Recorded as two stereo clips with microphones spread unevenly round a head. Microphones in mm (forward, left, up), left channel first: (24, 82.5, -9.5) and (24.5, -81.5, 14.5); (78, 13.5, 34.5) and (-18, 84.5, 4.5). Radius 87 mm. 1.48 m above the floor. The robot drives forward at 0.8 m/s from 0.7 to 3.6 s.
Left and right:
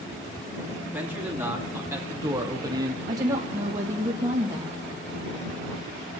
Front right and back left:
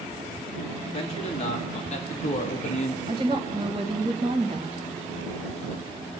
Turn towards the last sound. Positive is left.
turn(degrees=-165)